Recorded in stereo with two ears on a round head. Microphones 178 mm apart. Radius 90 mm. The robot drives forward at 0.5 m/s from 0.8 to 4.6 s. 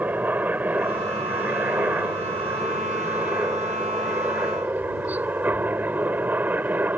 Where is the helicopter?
10° right (ahead or behind).